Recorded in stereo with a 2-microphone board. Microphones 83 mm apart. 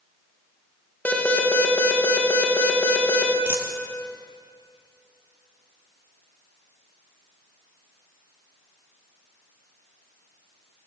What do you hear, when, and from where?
1.1 s an alarm: 20° left (ahead or behind), 3.5 m
3.5 s a dropped coin: 25° left (ahead or behind), 2.5 m